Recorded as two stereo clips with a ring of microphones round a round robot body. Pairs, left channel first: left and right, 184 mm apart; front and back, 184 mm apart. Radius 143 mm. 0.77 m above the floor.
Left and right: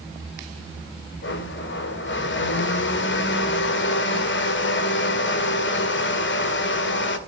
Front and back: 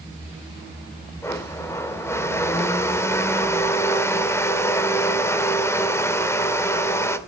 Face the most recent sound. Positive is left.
turn(degrees=75)